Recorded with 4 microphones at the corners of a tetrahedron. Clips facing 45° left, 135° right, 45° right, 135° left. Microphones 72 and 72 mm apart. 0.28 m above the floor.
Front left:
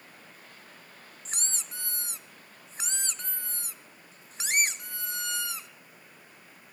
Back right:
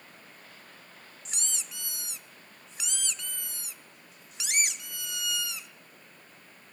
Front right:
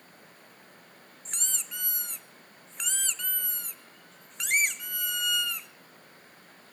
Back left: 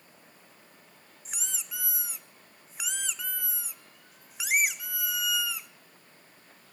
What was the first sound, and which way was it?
A squeak, 55° left.